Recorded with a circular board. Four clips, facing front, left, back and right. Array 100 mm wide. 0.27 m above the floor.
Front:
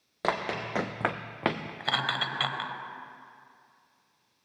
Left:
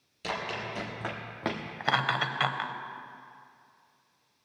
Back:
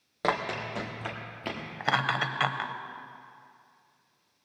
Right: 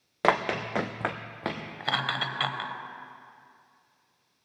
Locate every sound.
0.2 s running footsteps: 90° right, 1.3 m; by 1.7 s 10° left, 1.6 m
1.8 s laughter: 145° left, 0.9 m